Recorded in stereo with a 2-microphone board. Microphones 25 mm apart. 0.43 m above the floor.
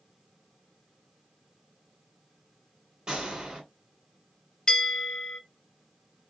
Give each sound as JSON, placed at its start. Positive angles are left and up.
{"t": 3.1, "sound": "a gunshot", "side_deg": -30, "distance_m": 1.9}
{"t": 4.7, "sound": "a bell", "side_deg": 30, "distance_m": 1.0}